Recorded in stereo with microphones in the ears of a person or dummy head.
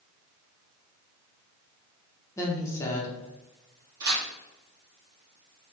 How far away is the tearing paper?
About 1.8 m.